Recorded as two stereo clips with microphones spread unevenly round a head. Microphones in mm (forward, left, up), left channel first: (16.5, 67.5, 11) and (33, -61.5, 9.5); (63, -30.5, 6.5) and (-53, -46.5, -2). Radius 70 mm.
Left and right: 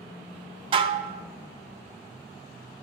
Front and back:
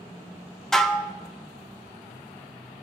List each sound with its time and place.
0.7 s dishes clattering: 70° right, 0.5 m